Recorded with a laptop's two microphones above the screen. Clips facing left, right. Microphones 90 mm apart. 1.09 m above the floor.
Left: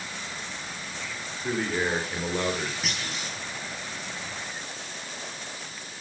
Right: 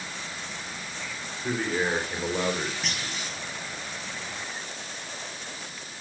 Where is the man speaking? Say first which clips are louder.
Even; centre (ahead or behind), 3.5 m; by 2.7 s 10° right (ahead or behind), 4.5 m.